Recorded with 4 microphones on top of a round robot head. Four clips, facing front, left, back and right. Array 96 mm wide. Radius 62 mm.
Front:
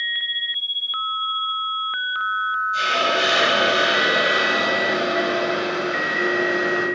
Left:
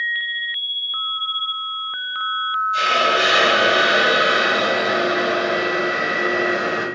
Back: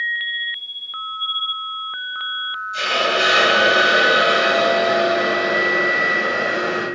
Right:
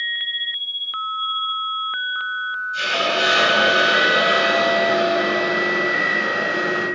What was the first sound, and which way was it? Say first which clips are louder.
A hiss: left 4 dB, back 4 dB; 105° left.